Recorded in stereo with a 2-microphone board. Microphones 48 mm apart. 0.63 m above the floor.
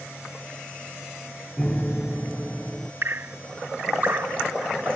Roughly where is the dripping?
Right.